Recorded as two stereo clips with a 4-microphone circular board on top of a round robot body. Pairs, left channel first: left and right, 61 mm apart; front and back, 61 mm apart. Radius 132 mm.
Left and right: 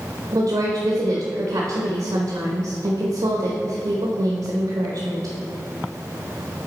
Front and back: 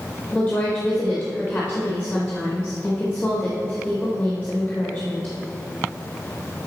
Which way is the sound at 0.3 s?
80° right.